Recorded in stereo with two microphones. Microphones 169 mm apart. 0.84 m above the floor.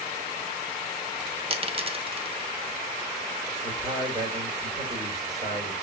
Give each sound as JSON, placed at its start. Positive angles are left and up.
{"t": 1.5, "sound": "a dropped coin", "side_deg": -35, "distance_m": 0.7}
{"t": 3.6, "sound": "a man speaking", "side_deg": -20, "distance_m": 2.0}